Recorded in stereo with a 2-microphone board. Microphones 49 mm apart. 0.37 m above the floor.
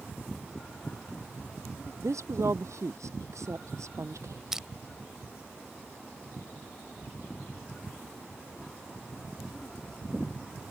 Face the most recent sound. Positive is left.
turn(degrees=-10)  # may be behind; listen again after turning